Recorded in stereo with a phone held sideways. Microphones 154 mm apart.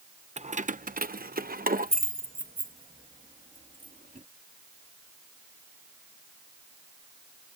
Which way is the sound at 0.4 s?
45° right (ahead or behind).